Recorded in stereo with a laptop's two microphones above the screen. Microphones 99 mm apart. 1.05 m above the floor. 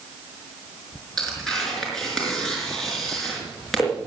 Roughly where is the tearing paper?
Centre.